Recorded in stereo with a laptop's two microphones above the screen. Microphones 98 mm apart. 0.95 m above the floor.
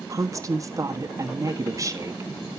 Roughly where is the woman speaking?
Right.